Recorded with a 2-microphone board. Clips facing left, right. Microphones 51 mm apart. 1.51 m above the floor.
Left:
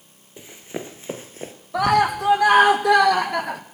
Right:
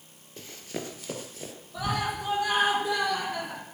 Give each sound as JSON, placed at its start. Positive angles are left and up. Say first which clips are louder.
{"t": 0.4, "sound": "running footsteps", "louder": "left 4 dB", "side_deg": 15, "distance_m": 1.8}
{"t": 1.7, "sound": "a scream", "louder": "left 12 dB", "side_deg": 90, "distance_m": 1.7}